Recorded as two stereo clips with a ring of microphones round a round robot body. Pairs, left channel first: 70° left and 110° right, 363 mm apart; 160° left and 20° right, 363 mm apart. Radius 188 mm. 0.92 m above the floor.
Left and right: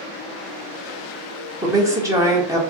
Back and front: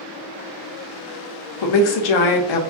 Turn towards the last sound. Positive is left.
turn(degrees=165)